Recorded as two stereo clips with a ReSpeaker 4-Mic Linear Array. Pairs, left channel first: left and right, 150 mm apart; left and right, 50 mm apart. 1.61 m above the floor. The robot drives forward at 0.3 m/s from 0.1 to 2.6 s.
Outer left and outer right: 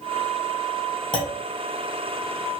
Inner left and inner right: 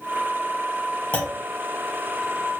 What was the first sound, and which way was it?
A clunk, 35° left (ahead or behind).